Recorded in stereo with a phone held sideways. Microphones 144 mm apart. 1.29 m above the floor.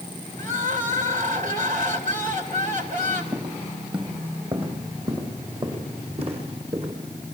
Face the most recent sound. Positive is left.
turn(degrees=-45)  # may be behind; listen again after turning